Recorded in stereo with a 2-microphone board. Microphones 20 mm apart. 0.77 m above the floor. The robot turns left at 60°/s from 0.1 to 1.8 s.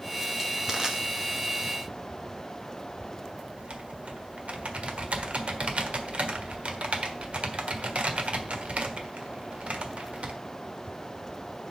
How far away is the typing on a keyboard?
About 1.3 m.